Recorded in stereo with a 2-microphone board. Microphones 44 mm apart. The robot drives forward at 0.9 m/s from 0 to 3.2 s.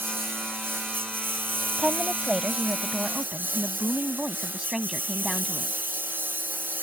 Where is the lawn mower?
55° right (ahead or behind); by 6.8 s 45° right (ahead or behind).